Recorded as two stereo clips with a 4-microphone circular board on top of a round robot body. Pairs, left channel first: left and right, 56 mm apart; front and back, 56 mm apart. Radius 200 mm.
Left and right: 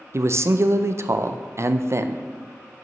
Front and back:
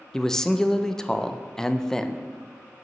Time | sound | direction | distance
0.1 | a man speaking | 80° right | 0.5 m